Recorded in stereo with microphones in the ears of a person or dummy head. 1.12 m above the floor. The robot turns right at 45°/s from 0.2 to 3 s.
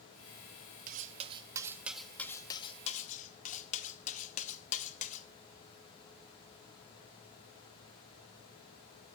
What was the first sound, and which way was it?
Cutlery clinking, 50° right (ahead or behind).